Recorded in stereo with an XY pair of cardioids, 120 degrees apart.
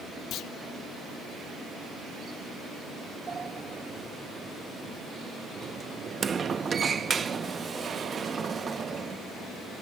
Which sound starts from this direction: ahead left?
A clunk, at 0.3 s.